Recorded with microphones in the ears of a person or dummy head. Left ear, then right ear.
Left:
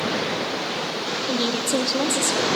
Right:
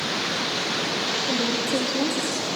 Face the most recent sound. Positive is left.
turn(degrees=35)  # may be behind; listen again after turning